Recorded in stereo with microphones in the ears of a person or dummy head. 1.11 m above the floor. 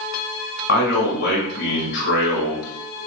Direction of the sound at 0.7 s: 55° left (ahead or behind).